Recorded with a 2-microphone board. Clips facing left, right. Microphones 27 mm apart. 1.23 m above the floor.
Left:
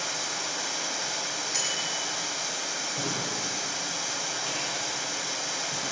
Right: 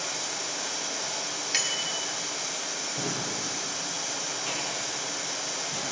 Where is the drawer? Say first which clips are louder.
Even; 5° right (ahead or behind), 4.5 m.